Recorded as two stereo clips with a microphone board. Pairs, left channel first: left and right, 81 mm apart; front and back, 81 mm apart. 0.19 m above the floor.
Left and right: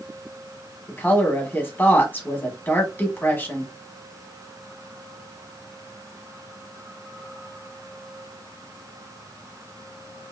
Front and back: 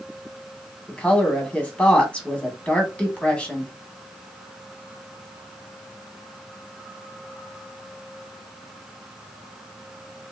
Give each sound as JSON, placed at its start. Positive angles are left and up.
{"t": 0.9, "sound": "a woman speaking", "azimuth_deg": 55, "distance_m": 1.1}